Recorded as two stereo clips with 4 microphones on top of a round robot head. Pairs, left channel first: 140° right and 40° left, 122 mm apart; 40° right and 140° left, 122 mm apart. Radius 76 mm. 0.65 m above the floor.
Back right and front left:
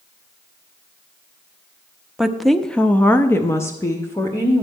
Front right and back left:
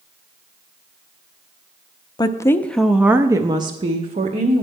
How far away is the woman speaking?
About 0.7 m.